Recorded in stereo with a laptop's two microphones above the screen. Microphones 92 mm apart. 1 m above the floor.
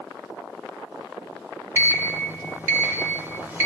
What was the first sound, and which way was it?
A sliding door, 25° right (ahead or behind).